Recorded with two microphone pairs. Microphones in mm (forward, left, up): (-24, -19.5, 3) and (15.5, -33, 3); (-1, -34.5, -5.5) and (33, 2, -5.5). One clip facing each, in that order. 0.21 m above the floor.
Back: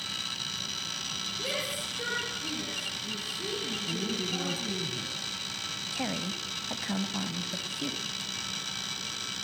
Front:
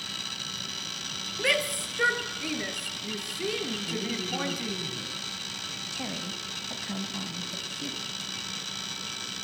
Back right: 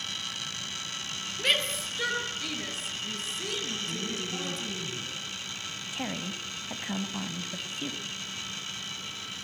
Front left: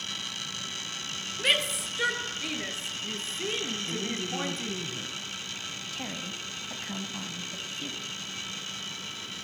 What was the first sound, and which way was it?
A shout, 35° right.